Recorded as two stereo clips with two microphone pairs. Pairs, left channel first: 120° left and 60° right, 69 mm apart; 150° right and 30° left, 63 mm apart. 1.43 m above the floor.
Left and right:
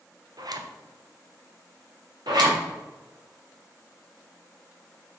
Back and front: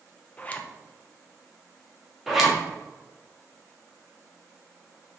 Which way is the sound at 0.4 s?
85° right.